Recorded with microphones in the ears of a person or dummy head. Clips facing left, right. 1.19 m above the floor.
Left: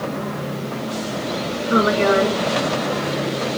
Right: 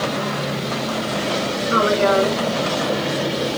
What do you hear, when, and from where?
1.7 s a woman speaking: 35° left (ahead or behind), 2 m